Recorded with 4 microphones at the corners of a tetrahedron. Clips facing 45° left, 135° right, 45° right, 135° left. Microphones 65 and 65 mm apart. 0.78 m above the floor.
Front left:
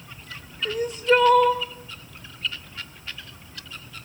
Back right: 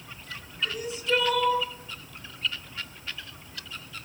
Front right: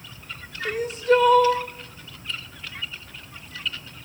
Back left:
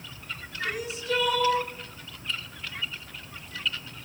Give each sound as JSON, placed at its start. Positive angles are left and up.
{"t": 0.7, "sound": "crying", "azimuth_deg": 0, "distance_m": 2.5}